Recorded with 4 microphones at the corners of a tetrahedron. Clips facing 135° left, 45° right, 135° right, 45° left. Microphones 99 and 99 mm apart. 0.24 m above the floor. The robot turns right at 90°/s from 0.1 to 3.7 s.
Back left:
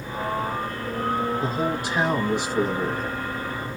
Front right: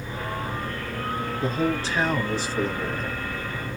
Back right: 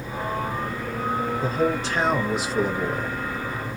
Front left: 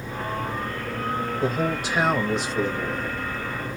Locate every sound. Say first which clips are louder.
1.4 s a man speaking: even, back right 1 dB; 60° left, 1.1 m; by 3.2 s 140° right, 1.1 m